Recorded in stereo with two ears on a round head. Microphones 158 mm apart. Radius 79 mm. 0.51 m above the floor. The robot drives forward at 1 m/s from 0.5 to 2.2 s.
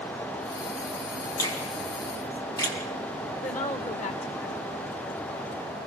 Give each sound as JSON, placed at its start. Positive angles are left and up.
{"t": 1.4, "sound": "a finger snap", "side_deg": 25, "distance_m": 4.5}
{"t": 3.4, "sound": "a woman speaking", "side_deg": 45, "distance_m": 2.0}